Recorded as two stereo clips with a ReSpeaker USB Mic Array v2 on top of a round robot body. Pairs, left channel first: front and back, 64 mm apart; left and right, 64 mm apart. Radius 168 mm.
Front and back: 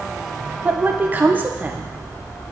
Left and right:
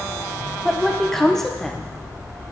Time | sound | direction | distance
0.7 | a woman speaking | 170° left | 0.9 m